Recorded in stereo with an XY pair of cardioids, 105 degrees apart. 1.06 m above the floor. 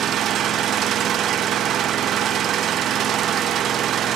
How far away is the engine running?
About 0.8 m.